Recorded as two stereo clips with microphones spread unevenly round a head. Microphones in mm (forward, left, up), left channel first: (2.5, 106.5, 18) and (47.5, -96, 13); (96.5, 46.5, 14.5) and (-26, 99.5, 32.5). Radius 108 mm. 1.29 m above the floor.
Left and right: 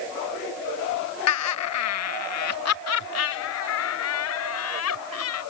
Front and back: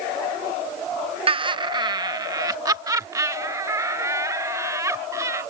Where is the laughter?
100° left; by 5.4 s 90° left.